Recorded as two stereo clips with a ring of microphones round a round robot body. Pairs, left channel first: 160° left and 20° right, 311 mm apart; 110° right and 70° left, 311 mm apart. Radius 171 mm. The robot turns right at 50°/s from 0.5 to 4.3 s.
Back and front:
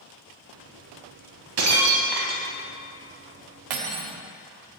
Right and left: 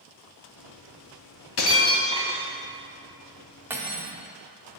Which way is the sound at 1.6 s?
70° right.